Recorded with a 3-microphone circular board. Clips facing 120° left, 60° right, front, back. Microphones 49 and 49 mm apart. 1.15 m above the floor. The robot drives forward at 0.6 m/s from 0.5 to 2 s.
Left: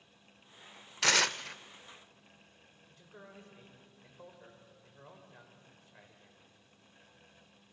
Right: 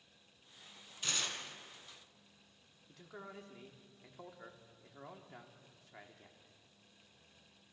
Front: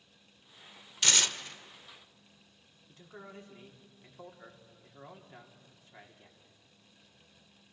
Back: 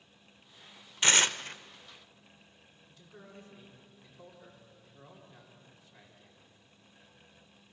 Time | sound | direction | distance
1.0 | tearing paper | 115° left | 0.5 m
2.9 | a man speaking | 50° right | 3 m